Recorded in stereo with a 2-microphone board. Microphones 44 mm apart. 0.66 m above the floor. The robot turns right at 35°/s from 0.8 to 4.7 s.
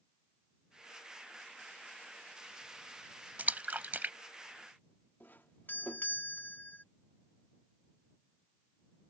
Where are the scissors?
No scissors in this recording.